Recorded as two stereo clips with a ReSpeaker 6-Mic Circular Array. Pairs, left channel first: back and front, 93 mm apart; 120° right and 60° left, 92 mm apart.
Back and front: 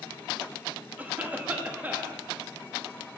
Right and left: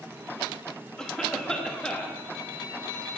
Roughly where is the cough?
Ahead right.